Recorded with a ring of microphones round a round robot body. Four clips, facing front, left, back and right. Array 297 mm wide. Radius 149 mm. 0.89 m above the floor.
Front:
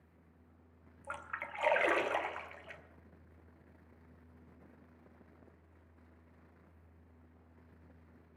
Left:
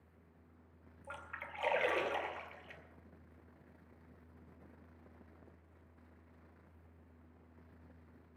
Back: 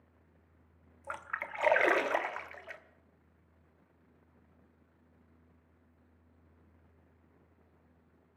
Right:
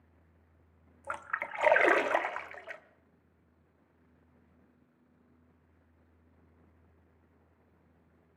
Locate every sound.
1.0 s a splash: 110° right, 1.1 m